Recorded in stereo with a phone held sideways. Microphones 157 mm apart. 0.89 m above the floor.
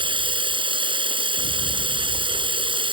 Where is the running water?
35° right (ahead or behind).